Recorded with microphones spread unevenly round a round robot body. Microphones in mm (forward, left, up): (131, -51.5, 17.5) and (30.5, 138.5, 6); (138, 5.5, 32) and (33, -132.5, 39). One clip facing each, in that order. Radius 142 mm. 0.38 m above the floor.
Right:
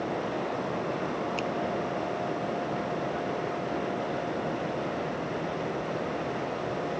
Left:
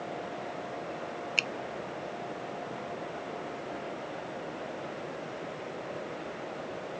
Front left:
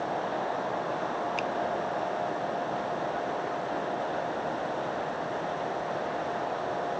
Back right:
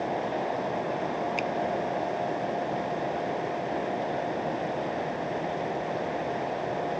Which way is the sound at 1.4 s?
150° left.